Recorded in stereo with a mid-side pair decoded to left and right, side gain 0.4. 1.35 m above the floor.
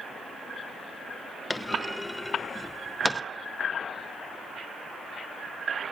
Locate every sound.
1.5 s a clunk: 15° left, 0.6 m